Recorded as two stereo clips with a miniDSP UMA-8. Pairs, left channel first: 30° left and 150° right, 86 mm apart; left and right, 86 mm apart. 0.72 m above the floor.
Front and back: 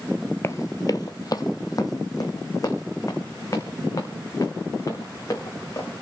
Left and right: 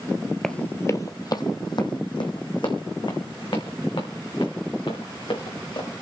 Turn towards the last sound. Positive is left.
turn(degrees=80)